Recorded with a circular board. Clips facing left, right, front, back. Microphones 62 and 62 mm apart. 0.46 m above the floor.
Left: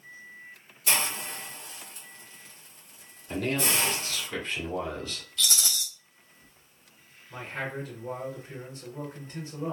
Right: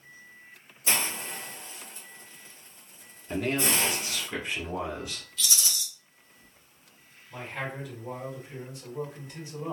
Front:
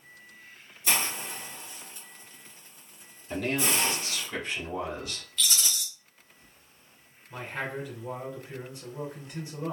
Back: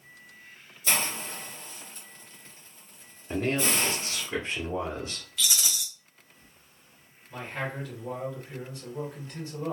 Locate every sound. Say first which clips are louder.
0.9 s a hiss: left 1 dB, even; 65° right, 1.4 m
3.3 s a man speaking: right 1 dB, back 1 dB; 155° right, 1.1 m
5.4 s a rattle: left 2 dB, even; 95° left, 0.8 m
7.3 s a man speaking: left 1 dB, even; 65° left, 1.7 m